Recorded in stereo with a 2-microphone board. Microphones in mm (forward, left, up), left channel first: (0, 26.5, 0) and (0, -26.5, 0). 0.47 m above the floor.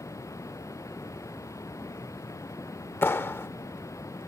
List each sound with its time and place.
0.0 s running water: 75° left (ahead or behind)
3.0 s a clap: 50° left (ahead or behind)